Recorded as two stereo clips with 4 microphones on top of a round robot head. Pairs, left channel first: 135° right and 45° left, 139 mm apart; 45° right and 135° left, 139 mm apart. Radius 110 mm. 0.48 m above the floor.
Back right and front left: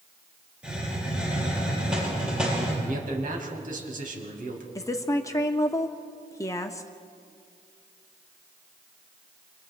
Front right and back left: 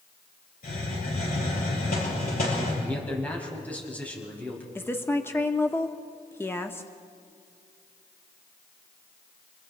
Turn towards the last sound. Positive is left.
turn(degrees=-100)